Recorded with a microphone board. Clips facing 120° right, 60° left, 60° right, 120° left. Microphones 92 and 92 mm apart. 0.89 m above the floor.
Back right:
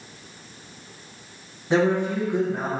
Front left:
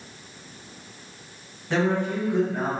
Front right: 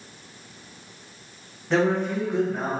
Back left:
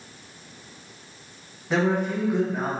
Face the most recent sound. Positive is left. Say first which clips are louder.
# back right 3 dB, front right 1 dB
turn(degrees=-160)